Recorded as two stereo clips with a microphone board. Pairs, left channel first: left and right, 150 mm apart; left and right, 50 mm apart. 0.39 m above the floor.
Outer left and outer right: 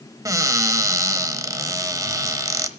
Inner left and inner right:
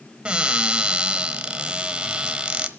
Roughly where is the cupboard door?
Right.